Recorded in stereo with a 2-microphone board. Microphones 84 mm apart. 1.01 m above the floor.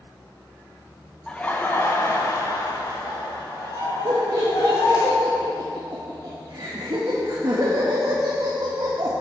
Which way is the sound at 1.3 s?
10° left (ahead or behind).